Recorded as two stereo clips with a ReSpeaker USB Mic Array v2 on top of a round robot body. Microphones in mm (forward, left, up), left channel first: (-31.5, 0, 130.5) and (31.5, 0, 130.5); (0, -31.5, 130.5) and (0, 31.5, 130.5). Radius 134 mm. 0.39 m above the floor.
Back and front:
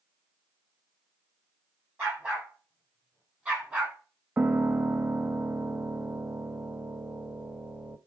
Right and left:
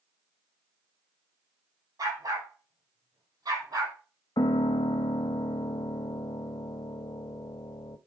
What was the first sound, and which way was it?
A dog barking, 60° left.